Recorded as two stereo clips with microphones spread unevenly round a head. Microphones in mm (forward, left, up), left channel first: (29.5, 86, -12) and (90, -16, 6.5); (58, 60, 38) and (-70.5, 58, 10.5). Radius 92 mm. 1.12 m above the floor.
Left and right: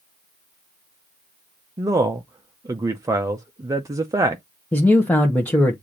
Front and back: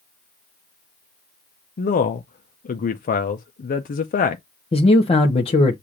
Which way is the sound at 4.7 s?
50° left.